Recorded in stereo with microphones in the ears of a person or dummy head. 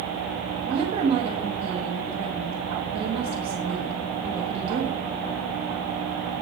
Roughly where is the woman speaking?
Right.